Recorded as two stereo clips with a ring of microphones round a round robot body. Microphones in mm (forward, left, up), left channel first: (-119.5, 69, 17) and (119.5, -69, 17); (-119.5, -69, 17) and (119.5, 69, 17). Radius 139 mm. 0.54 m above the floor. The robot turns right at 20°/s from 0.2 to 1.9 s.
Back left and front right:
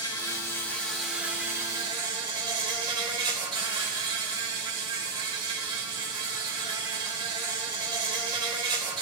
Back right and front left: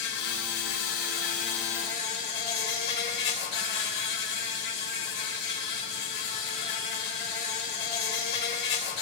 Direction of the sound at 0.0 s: 135° right.